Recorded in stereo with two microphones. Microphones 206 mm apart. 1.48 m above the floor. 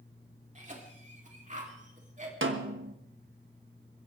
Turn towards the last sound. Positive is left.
turn(degrees=-70)  # may be behind; listen again after turning